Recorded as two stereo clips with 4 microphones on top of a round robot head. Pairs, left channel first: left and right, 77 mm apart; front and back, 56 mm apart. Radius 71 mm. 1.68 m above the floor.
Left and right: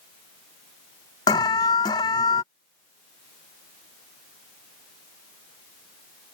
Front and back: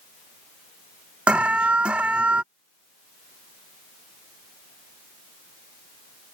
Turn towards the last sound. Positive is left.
turn(degrees=115)